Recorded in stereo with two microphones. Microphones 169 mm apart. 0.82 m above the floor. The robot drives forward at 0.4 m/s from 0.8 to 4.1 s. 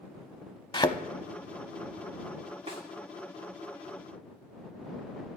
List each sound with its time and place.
0.7 s a thud: 30° left (ahead or behind), 0.7 m; by 1.0 s 25° left (ahead or behind), 0.8 m
2.7 s a snare drum: 35° right (ahead or behind), 1.8 m